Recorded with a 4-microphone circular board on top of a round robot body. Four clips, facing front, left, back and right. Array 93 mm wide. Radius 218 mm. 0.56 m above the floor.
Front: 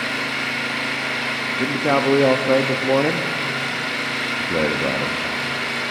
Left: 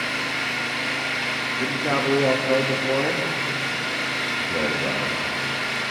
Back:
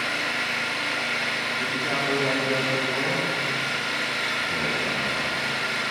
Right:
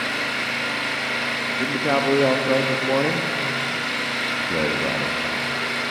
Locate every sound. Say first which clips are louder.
0.0 s an engine running: right 1 dB, front 3 dB; 45° right, 8.5 m
1.6 s a man speaking: right 3 dB, front 11 dB; 15° right, 1.4 m